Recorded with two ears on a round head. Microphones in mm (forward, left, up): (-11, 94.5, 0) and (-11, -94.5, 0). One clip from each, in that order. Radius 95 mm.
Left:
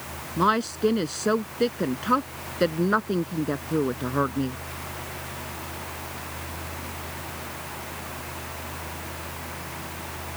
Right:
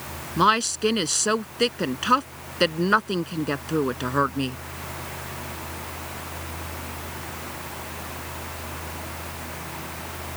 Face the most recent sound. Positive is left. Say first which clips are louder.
# right 3 dB
turn(degrees=-70)  # may be behind; listen again after turning